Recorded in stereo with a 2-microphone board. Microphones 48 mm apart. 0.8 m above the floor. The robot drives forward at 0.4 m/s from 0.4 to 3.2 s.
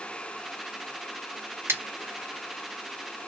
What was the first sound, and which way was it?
Scissors, 55° right (ahead or behind).